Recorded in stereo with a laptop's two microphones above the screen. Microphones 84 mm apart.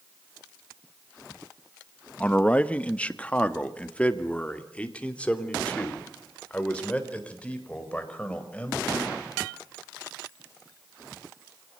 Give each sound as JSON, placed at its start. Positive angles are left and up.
{"t": 2.2, "sound": "a man speaking", "side_deg": 15, "distance_m": 1.0}